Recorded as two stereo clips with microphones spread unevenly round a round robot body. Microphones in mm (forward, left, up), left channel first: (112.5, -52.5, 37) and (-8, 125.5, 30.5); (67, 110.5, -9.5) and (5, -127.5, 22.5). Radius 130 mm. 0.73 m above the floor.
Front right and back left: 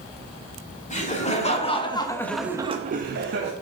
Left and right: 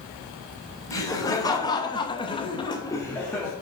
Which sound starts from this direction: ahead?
Laughter, at 0.9 s.